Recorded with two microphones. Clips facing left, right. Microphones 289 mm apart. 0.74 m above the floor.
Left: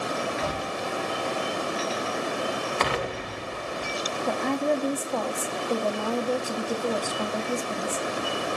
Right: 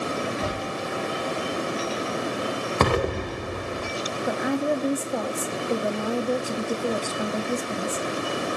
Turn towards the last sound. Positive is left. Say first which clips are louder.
# right 1 dB
turn(degrees=-10)  # may be behind; listen again after turning